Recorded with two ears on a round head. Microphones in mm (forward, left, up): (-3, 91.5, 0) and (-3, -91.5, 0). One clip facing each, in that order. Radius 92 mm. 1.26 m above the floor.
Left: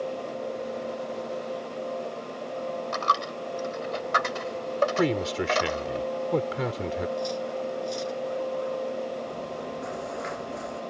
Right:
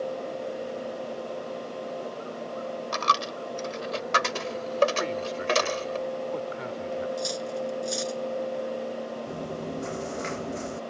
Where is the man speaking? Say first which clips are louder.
Left 5 dB; 65° left (ahead or behind).